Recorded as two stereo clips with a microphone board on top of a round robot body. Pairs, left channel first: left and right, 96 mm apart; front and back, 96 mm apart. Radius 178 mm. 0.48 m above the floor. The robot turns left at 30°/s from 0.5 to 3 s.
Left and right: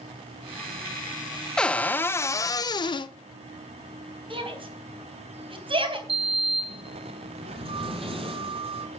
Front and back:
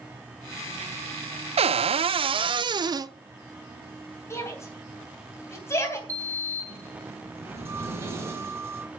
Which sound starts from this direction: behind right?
A sliding door, at 6.1 s.